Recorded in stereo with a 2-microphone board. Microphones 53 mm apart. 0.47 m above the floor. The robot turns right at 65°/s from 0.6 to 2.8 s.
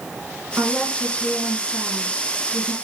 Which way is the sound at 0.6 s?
35° right.